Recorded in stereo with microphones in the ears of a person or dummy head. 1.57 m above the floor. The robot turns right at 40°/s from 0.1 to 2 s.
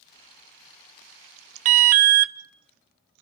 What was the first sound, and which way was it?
An alarm, 45° right (ahead or behind).